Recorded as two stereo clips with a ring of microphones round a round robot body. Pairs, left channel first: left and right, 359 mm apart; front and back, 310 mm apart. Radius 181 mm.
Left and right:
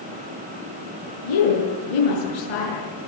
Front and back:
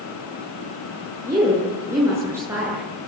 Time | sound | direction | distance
1.2 | a woman speaking | 100° left | 9 m